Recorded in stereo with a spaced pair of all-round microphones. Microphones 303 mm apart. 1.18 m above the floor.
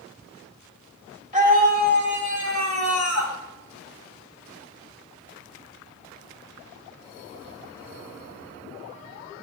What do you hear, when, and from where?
1.3 s a scream: 25° right (ahead or behind), 2.5 m; by 3.4 s 60° right (ahead or behind), 2.5 m